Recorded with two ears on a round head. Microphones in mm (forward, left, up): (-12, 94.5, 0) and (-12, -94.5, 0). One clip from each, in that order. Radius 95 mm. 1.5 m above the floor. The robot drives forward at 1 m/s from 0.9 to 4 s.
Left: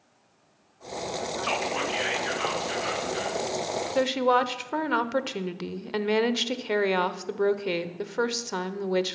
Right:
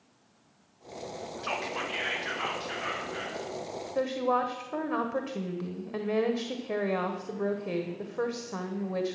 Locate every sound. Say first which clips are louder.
1.4 s whispering: left 4 dB; 30° left (ahead or behind), 0.9 m; by 3.4 s 10° left (ahead or behind), 3 m
4.0 s a woman speaking: left 5 dB; 85° left, 0.8 m